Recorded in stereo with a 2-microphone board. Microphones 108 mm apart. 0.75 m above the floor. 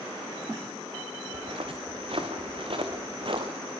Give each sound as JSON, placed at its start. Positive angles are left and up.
{"t": 1.3, "sound": "footsteps", "side_deg": -60, "distance_m": 4.0}